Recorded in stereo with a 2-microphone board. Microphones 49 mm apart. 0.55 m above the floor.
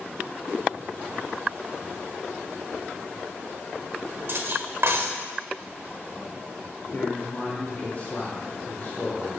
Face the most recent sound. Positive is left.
turn(degrees=40)  # may be behind; listen again after turning